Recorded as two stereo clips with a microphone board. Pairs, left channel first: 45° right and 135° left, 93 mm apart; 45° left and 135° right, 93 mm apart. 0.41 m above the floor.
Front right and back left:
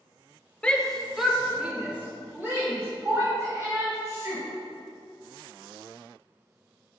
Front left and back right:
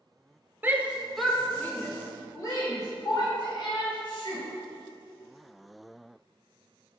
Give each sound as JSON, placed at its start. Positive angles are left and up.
{"t": 0.6, "sound": "a shout", "azimuth_deg": -110, "distance_m": 1.1}